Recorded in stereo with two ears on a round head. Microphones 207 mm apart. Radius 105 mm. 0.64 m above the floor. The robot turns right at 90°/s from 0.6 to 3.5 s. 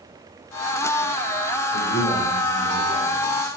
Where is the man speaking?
135° left, 2.5 m; by 3.5 s 70° right, 2.5 m.